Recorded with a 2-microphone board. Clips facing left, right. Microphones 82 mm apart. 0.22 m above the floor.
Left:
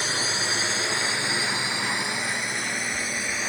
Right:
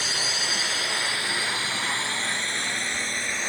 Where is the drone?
30° left (ahead or behind); by 3.5 s centre (ahead or behind).